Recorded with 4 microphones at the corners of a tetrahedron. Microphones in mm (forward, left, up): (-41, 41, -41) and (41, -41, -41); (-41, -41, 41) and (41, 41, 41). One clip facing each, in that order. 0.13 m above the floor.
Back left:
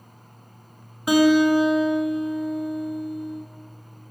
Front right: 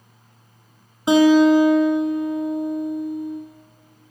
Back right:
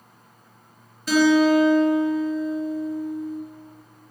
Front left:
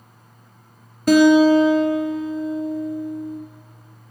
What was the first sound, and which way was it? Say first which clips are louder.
A guitar: front right 4 dB, front left 5 dB; 20° left.